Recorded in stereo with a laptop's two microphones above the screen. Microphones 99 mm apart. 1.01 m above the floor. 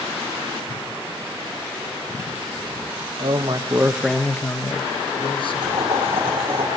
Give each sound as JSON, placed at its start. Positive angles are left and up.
{"t": 3.2, "sound": "a man speaking", "side_deg": -55, "distance_m": 0.9}
{"t": 5.6, "sound": "boiling", "side_deg": -60, "distance_m": 5.5}